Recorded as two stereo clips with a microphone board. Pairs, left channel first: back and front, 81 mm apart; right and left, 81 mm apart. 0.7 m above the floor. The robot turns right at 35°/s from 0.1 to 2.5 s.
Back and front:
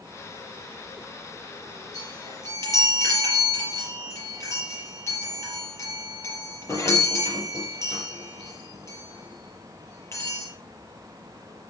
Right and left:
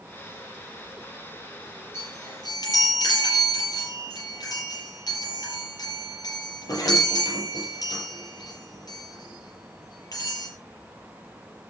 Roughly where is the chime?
Behind right.